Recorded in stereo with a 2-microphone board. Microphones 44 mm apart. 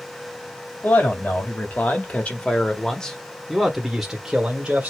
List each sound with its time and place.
0.8 s a man speaking: 45° left (ahead or behind), 1.8 m; by 4.9 s 30° right (ahead or behind), 1.3 m